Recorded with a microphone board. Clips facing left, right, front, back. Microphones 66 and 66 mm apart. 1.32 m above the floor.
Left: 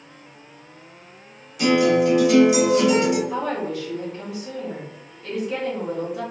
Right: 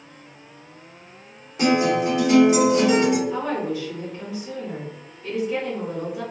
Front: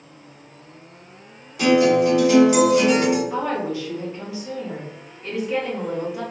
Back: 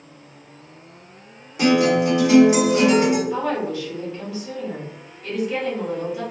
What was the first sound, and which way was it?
A guitar, 125° right.